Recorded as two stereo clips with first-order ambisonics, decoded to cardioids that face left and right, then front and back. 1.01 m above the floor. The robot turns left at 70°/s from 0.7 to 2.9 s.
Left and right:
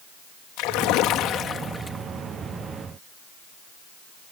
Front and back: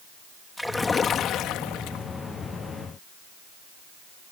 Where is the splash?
85° left; by 2.0 s 10° right.